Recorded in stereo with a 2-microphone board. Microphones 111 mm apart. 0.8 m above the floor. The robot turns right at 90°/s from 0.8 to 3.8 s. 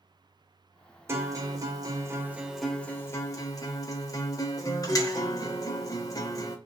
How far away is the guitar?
About 0.6 m.